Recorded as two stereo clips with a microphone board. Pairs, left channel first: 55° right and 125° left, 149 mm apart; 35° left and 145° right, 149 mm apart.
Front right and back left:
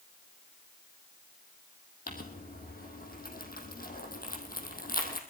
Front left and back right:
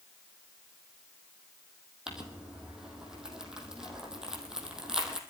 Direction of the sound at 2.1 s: 60° right.